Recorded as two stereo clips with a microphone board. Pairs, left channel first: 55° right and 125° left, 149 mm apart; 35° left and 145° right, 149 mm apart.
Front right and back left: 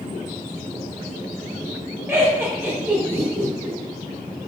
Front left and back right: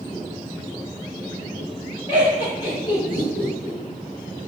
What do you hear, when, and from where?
2.1 s laughter: 60° left, 0.9 m